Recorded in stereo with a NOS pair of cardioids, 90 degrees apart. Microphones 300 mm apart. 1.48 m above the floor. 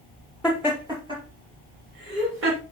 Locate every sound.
0.4 s laughter: 5° right, 2.5 m; by 2.6 s 45° right, 3 m